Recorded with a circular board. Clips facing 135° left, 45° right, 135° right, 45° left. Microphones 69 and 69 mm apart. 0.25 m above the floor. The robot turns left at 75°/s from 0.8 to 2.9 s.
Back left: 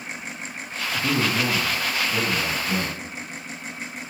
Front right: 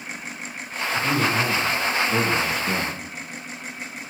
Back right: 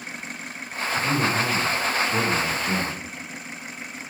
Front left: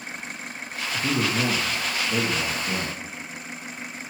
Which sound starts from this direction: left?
A man speaking, at 0.9 s.